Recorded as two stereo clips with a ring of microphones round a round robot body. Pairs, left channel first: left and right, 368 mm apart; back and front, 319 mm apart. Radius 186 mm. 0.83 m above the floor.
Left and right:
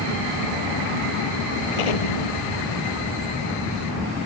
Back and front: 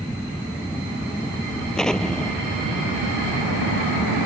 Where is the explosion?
90° left.